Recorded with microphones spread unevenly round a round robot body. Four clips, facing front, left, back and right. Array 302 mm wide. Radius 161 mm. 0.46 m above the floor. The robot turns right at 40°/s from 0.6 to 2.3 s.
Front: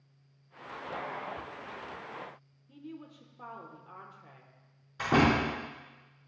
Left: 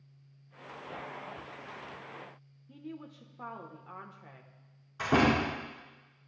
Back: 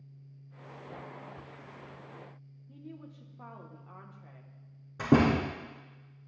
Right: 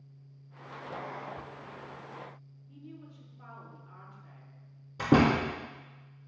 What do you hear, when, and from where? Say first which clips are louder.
2.7 s a woman speaking: left 4 dB, front 2 dB; 65° left, 1.2 m
5.0 s a door slam: right 2 dB, back 1 dB; 140° right, 3.5 m